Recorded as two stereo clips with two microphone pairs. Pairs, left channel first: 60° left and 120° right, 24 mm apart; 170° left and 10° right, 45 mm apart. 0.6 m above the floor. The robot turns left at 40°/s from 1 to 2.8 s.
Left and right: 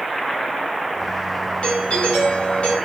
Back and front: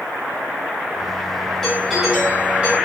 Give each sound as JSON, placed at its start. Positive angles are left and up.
{"t": 1.6, "sound": "a doorbell", "azimuth_deg": 90, "distance_m": 3.0}